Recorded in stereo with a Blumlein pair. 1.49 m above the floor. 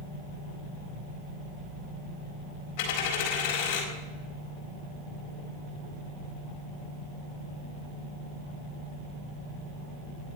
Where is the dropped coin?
50° left, 4 m.